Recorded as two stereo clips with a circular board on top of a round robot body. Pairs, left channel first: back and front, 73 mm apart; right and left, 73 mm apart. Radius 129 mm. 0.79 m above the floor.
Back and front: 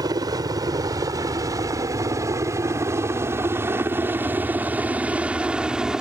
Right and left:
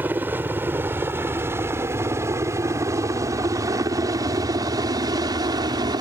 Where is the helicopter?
25° left; by 6.0 s 80° left.